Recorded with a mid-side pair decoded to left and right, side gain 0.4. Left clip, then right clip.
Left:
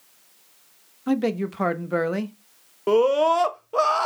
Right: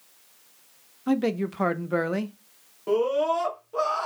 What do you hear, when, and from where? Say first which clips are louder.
1.1 s a man speaking: left 1 dB; 5° left, 0.6 m
2.9 s a scream: left 5 dB; 65° left, 0.8 m